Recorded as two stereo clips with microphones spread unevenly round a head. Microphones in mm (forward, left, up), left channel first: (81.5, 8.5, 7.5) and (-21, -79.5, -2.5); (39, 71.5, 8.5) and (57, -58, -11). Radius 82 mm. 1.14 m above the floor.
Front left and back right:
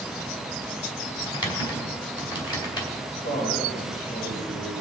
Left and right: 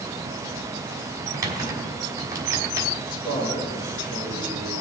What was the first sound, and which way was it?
Typing on a keyboard, 15° right.